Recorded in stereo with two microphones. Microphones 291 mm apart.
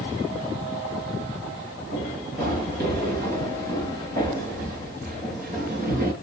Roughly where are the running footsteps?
Right.